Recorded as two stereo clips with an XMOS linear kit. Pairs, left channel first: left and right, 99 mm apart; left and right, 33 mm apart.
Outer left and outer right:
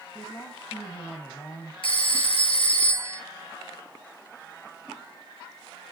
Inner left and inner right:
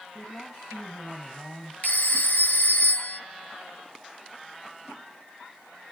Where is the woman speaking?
25° left (ahead or behind), 2.5 m.